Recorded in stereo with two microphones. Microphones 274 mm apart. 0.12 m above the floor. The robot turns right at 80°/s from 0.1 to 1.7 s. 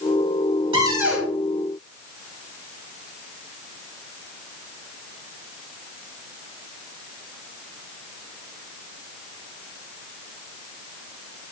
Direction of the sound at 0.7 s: 20° right (ahead or behind).